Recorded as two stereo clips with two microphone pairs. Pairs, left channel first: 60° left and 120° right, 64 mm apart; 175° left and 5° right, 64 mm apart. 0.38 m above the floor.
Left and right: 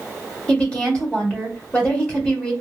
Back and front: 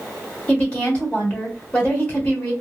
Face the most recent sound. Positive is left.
turn(degrees=120)